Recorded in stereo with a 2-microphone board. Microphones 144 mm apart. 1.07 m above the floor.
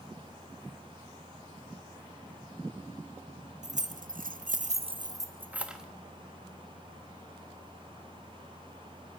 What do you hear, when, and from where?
3.6 s keys jangling: 55° right (ahead or behind), 0.8 m; by 5.8 s 5° right (ahead or behind), 1.0 m